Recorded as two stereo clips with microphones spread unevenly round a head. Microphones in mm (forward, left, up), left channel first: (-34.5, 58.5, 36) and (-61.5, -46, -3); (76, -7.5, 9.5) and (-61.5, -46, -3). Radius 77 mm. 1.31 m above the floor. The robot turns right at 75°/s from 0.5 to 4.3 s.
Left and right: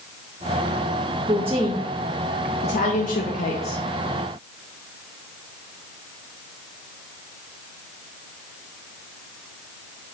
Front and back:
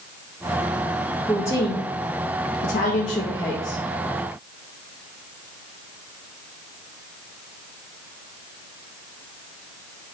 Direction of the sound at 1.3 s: 65° right.